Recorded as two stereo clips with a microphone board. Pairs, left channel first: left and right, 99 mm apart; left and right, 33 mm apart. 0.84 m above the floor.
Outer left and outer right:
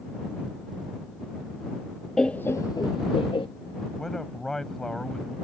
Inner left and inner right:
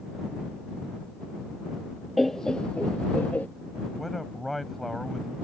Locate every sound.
2.2 s laughter: 5° left (ahead or behind); by 3.5 s 60° left (ahead or behind)
4.0 s a man speaking: 5° left (ahead or behind)